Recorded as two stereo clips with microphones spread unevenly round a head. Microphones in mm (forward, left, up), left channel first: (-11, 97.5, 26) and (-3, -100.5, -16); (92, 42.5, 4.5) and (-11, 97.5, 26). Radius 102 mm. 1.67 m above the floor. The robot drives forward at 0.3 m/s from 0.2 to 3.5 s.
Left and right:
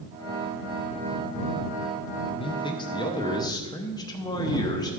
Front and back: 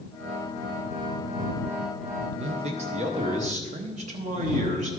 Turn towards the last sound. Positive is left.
turn(degrees=160)